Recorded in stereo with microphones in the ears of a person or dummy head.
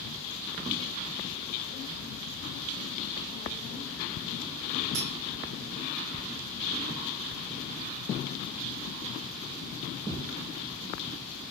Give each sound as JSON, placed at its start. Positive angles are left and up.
{"t": 4.9, "sound": "cutlery clinking", "side_deg": -65, "distance_m": 1.9}